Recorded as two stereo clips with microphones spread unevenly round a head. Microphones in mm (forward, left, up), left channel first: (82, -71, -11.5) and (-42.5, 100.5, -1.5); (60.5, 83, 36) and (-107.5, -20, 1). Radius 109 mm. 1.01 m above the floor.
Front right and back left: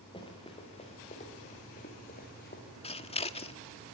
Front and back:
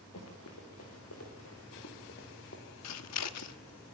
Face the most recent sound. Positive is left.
turn(degrees=10)